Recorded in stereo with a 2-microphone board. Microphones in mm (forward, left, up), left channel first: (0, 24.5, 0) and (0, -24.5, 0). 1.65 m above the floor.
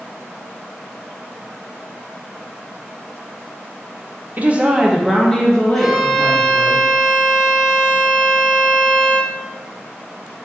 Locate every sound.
4.4 s a woman speaking: 35° right (ahead or behind), 0.6 m; by 6.8 s 35° left (ahead or behind), 1.7 m
5.8 s a violin: 5° right (ahead or behind), 0.6 m